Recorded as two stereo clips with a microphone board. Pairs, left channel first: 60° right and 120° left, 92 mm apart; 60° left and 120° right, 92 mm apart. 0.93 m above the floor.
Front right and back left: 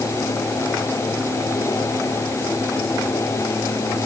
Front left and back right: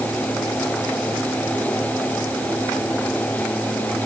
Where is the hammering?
I don't hear hammering.